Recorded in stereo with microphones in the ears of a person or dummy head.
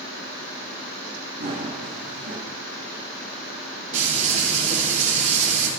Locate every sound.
1.4 s running footsteps: 40° right (ahead or behind), 3.5 m
3.9 s frying: 40° right (ahead or behind), 3 m